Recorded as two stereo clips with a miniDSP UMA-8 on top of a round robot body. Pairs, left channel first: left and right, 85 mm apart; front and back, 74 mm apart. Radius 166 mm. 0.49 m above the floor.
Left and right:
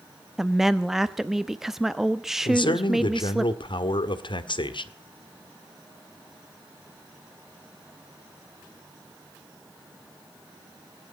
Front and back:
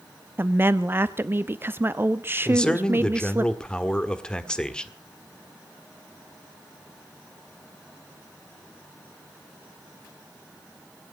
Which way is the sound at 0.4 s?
170° right.